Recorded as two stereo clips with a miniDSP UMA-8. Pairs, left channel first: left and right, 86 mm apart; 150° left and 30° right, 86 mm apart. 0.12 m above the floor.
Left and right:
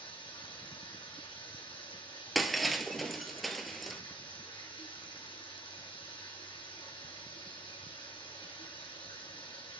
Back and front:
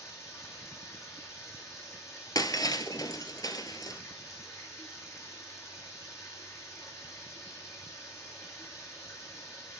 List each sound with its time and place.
0.0 s running water: 95° left, 3 m
2.4 s breaking glass: straight behind, 0.9 m